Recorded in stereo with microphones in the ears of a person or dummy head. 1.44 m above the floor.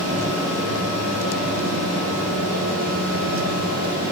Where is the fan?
80° right, 6 m.